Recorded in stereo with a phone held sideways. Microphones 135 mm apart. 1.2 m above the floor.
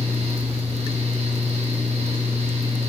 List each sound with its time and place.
0.0 s a fan: 55° right (ahead or behind), 0.8 m